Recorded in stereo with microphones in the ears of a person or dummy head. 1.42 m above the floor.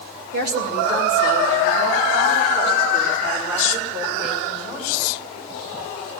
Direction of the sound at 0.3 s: 65° right (ahead or behind).